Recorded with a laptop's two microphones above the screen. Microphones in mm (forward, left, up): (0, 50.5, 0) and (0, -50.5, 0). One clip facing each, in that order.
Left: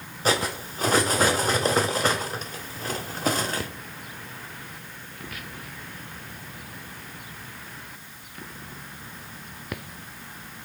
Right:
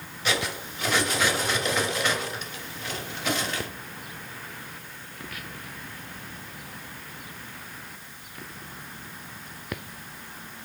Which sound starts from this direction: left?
Cutlery clinking, at 0.2 s.